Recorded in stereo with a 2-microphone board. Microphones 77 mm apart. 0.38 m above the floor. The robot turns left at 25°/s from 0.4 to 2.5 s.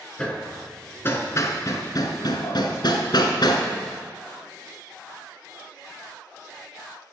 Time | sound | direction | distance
0.2 | hammering | 15° left (ahead or behind) | 1.3 m